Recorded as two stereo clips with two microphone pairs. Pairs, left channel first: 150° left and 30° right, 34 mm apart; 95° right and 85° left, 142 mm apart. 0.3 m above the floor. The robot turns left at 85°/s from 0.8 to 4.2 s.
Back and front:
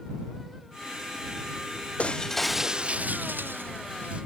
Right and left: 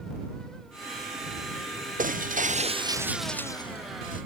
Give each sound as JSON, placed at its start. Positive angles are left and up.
{"t": 2.0, "sound": "breaking glass", "azimuth_deg": 100}